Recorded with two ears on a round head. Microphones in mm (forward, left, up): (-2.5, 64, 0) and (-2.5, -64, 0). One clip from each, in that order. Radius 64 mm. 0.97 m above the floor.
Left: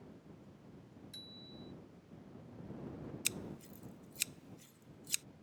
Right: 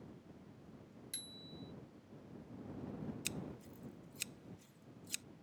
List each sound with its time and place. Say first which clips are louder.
1.1 s a bicycle bell: right 1 dB; 50° right (ahead or behind)
3.2 s scissors: left 7 dB; 25° left (ahead or behind)